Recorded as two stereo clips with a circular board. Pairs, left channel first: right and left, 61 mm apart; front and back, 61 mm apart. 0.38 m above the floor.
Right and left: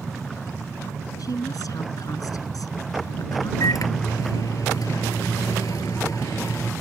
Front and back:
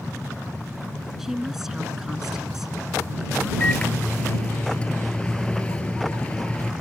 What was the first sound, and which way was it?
A woman speaking, 95° right.